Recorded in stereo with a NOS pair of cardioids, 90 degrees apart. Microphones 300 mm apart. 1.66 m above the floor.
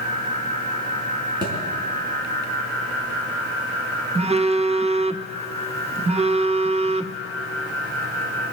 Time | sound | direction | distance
1.4 | a thud | 15° right | 5 m
4.2 | a phone buzzing | 20° right | 0.6 m